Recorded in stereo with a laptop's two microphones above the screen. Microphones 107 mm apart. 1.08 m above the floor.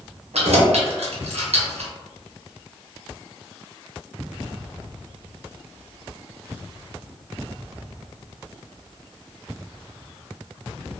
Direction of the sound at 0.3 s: 80° right.